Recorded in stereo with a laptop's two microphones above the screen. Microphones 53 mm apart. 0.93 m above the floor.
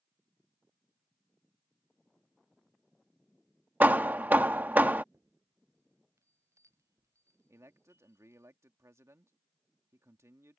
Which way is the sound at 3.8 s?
30° right (ahead or behind).